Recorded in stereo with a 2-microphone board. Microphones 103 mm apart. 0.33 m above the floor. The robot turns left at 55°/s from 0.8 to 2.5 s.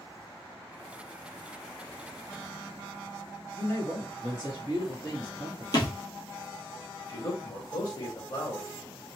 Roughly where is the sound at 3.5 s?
Left.